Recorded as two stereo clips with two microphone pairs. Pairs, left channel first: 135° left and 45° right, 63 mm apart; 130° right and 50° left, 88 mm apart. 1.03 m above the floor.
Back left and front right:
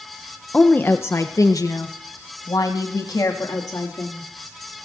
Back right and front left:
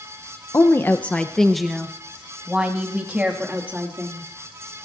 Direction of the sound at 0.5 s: 160° right.